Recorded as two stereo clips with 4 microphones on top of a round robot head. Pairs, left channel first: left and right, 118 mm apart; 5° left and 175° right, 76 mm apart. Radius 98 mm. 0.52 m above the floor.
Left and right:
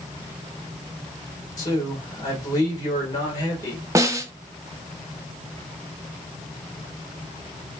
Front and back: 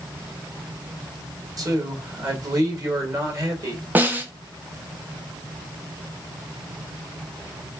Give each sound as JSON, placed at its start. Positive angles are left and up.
{"t": 1.6, "sound": "a man speaking", "azimuth_deg": 150, "distance_m": 1.7}
{"t": 4.0, "sound": "a snare drum", "azimuth_deg": -130, "distance_m": 0.7}